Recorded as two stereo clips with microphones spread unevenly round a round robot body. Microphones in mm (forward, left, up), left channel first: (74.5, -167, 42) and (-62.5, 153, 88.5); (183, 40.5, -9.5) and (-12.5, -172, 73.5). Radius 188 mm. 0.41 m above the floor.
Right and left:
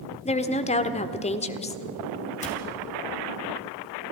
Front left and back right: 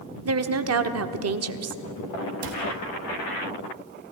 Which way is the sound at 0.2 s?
115° right.